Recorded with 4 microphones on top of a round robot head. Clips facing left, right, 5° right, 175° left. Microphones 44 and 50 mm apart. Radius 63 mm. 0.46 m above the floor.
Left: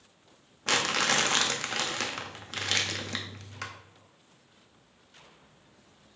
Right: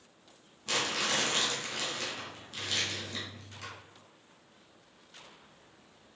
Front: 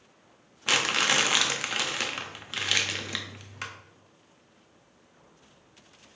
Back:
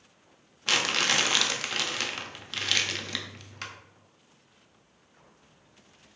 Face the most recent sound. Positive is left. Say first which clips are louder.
# left 5 dB, front 1 dB
turn(degrees=75)